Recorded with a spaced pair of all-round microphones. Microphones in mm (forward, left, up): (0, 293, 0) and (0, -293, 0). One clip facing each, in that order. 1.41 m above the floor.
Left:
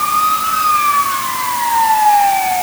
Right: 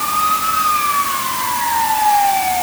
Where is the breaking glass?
I don't hear breaking glass.